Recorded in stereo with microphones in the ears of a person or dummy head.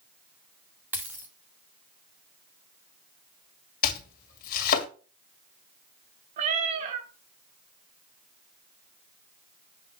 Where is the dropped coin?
10° right (ahead or behind), 0.7 m.